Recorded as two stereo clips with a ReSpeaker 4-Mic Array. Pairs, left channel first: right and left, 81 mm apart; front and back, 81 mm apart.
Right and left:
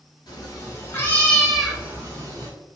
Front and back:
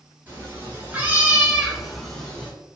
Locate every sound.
0.3 s a cat meowing: 115° right, 1.2 m; by 2.5 s 75° left, 1.0 m